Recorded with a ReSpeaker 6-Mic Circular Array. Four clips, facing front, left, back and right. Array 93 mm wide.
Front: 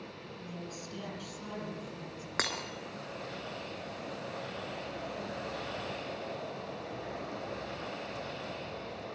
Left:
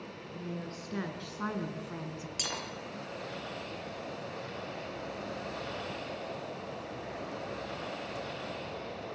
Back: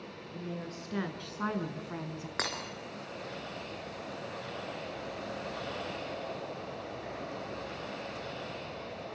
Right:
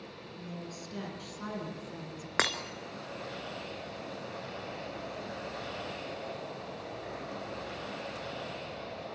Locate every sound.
0.3 s a woman speaking: 150° left, 6.5 m; by 2.3 s 165° left, 4 m
2.4 s breaking glass: 80° right, 2.5 m